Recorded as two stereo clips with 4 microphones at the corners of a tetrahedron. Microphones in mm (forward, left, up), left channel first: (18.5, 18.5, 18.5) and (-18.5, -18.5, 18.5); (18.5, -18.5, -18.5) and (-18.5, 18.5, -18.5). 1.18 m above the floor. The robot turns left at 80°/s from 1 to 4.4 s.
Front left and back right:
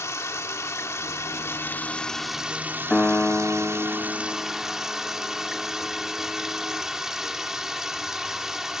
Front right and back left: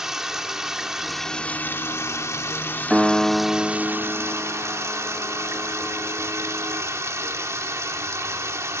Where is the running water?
55° left, 2 m; by 8.8 s 145° left, 2 m.